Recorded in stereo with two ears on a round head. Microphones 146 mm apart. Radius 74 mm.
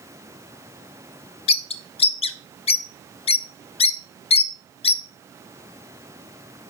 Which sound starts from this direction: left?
A bird, at 1.5 s.